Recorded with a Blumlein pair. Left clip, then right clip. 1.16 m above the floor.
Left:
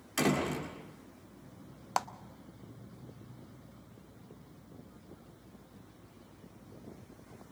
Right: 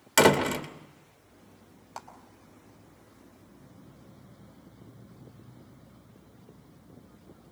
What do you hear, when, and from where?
0.2 s a door slam: 50° right, 1.2 m
2.0 s a clap: 60° left, 0.5 m